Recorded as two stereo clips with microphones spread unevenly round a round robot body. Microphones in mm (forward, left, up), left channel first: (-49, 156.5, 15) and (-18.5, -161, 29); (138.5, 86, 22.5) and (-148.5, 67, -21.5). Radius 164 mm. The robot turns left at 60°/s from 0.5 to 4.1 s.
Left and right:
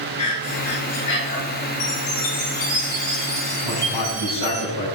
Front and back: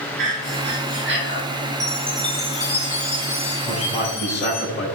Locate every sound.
0.2 s breathing: 165° left, 6 m; by 1.4 s 115° left, 6 m
1.8 s a chime: 115° left, 6 m; by 4.6 s 20° right, 6 m
3.6 s a man speaking: 85° left, 5 m; by 4.9 s 60° left, 5 m